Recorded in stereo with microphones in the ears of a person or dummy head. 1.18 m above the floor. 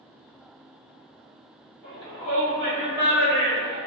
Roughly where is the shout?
Centre.